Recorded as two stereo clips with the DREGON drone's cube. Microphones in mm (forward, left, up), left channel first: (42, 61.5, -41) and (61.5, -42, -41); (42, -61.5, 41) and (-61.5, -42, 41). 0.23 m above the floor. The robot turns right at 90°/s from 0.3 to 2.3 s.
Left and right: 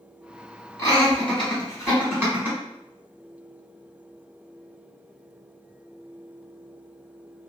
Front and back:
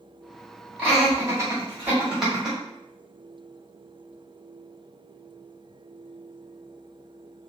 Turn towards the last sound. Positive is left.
turn(degrees=-105)